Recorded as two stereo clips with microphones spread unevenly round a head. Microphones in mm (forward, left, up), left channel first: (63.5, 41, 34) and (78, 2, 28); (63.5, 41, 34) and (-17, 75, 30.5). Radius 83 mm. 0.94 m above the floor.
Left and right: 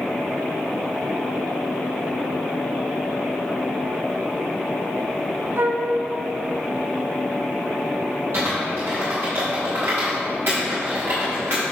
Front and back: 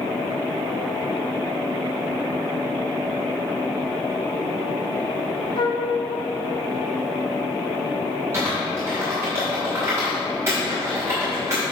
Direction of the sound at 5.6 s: 65° right.